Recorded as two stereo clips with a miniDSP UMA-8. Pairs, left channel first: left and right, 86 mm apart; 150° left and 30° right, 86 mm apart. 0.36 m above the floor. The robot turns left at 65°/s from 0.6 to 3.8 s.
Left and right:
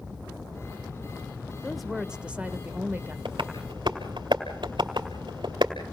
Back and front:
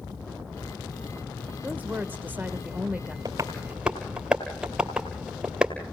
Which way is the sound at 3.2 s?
75° right.